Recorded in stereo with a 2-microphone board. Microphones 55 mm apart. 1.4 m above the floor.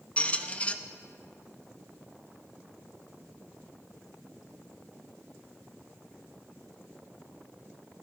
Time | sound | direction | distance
0.2 | a squeak | 25° left (ahead or behind) | 0.8 m